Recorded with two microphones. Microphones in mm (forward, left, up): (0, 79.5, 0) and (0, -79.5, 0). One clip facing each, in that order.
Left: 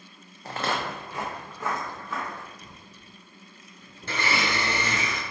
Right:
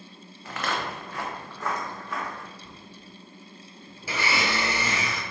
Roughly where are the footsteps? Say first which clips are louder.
Left 2 dB; left.